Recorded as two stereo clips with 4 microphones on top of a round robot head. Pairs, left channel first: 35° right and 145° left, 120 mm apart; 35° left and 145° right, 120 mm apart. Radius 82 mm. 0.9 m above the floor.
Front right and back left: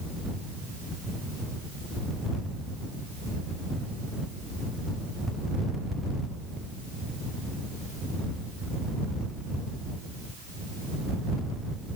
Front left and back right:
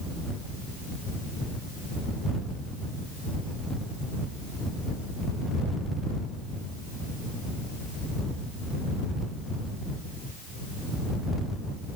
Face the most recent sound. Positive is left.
No sound to turn to.